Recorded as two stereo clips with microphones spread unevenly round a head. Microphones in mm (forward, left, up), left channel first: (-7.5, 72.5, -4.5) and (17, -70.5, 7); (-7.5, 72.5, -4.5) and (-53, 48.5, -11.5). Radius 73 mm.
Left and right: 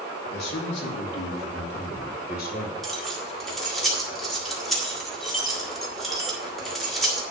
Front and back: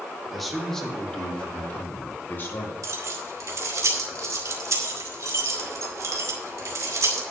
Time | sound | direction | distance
0.3 | a man speaking | 120° left | 2.5 m
2.8 | keys jangling | 170° right | 1.9 m